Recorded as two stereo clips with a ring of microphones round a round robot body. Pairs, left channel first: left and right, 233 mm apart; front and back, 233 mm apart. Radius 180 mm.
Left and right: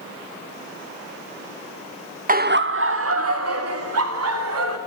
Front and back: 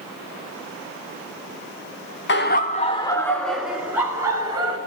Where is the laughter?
40° right, 1.3 m; by 4.8 s 105° right, 3.5 m.